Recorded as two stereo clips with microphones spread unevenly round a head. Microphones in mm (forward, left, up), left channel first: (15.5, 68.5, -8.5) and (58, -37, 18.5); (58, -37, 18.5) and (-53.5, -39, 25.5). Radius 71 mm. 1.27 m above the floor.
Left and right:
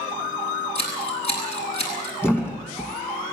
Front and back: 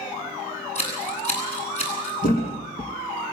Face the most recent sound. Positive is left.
turn(degrees=35)